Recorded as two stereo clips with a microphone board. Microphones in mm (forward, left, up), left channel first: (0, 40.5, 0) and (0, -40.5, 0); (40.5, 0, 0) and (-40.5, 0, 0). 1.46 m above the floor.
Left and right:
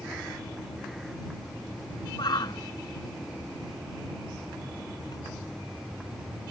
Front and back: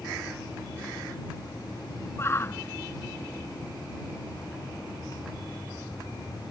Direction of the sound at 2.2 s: 60° left.